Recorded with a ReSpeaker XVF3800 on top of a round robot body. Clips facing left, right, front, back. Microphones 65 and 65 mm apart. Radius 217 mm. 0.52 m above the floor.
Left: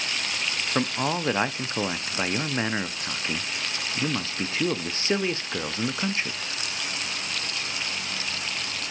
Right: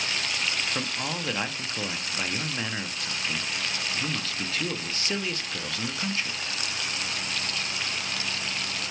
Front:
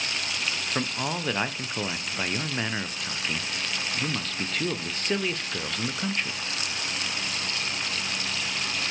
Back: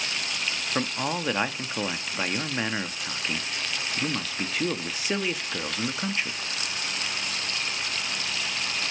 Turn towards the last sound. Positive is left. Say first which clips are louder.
# left 6 dB, back 3 dB
turn(degrees=105)